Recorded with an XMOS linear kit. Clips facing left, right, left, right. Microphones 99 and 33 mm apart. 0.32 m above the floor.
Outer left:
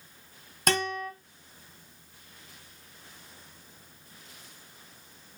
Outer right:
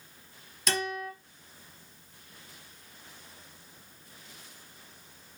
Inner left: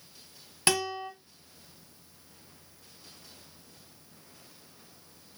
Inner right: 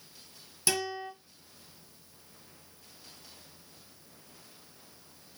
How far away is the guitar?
About 1.5 m.